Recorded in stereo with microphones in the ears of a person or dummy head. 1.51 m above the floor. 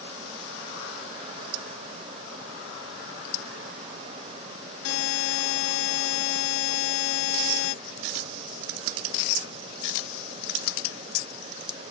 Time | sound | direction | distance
4.8 | a buzzer | 75° left (ahead or behind) | ?